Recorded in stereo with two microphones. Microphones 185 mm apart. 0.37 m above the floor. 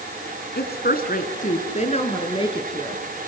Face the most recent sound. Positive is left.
turn(degrees=25)  # may be behind; listen again after turning